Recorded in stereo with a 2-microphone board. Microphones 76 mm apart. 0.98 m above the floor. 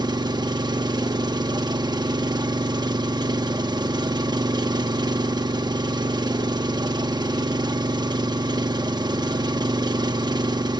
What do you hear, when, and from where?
0.0 s an engine running: 65° right (ahead or behind), 0.8 m